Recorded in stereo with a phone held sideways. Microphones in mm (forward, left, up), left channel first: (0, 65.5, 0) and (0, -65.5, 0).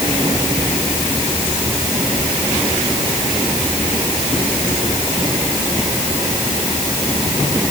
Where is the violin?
I don't hear a violin.